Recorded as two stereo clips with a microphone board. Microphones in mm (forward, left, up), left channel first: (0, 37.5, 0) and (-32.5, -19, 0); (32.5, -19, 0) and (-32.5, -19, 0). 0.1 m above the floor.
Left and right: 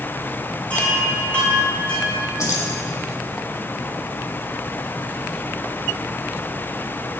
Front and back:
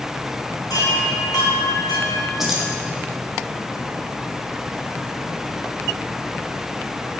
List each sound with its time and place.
0.7 s a chime: 15° right, 3.5 m
2.4 s keys jangling: 95° left, 2.5 m